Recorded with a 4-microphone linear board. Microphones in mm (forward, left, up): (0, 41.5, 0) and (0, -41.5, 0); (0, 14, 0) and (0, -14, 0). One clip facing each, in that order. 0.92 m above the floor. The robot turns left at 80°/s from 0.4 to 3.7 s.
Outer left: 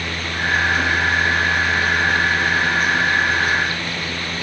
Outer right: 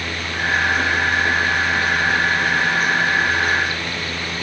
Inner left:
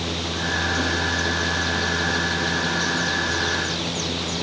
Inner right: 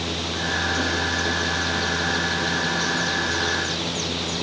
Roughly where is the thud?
I don't hear a thud.